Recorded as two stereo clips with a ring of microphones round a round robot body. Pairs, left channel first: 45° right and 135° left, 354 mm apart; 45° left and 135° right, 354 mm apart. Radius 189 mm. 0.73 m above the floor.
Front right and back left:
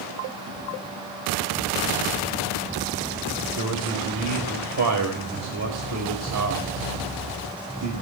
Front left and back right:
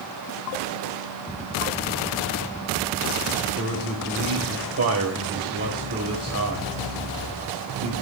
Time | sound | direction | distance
3.6 | a man speaking | 175° left | 4 m